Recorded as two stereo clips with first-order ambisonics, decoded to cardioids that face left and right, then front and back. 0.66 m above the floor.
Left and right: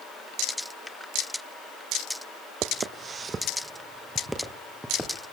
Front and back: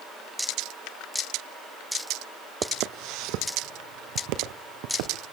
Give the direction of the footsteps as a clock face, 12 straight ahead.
5 o'clock.